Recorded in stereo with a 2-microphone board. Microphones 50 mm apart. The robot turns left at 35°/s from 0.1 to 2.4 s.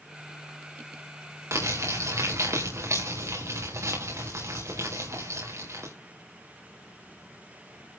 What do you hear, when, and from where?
1.5 s crumpling: 75° right (ahead or behind), 6 m